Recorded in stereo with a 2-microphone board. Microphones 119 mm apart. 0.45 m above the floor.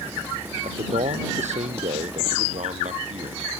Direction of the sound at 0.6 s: 70° right (ahead or behind).